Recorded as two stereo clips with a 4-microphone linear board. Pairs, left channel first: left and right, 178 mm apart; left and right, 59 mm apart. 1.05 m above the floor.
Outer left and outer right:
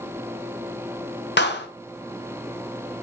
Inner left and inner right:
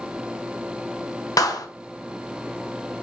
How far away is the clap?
About 0.5 m.